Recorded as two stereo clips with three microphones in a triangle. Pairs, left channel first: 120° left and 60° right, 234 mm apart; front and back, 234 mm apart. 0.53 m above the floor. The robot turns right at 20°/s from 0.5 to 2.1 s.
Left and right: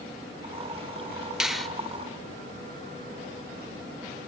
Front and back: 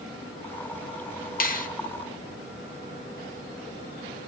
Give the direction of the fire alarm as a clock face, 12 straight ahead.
No fire alarm in this recording.